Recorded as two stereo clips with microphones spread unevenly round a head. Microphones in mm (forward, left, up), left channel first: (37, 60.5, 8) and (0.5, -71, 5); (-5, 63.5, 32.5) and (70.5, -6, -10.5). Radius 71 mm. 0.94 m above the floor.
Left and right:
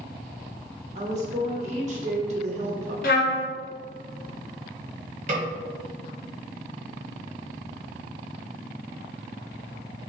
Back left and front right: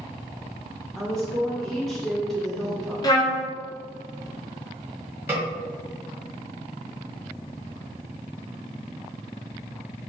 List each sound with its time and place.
0.9 s a woman speaking: 120° right, 1.0 m
3.0 s a trumpet: 80° left, 1.4 m
5.3 s a snare drum: 95° right, 1.3 m